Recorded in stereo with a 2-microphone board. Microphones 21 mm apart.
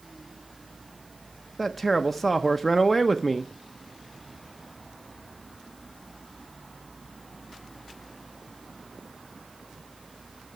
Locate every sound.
1.6 s a man speaking: 5° left (ahead or behind), 0.8 m